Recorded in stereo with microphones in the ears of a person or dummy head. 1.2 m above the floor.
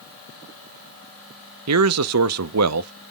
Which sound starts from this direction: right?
A man speaking, at 1.7 s.